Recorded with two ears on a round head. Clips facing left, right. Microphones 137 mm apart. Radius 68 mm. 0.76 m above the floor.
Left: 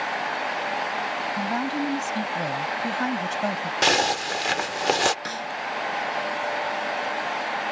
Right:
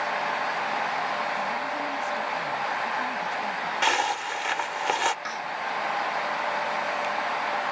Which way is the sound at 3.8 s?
45° left (ahead or behind).